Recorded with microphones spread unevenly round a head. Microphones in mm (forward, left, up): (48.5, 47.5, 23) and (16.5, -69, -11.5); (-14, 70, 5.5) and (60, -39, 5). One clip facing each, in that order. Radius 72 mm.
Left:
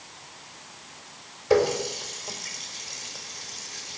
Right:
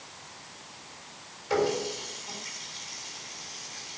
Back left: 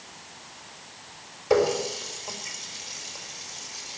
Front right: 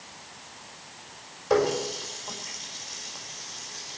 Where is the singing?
I don't hear singing.